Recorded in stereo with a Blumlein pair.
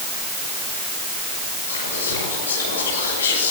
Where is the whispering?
70° left, 8 m.